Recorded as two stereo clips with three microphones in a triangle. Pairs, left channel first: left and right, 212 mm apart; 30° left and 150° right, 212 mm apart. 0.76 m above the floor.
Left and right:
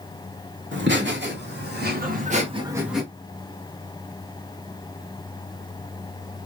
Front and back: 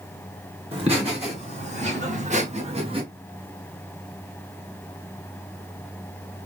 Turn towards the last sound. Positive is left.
turn(degrees=175)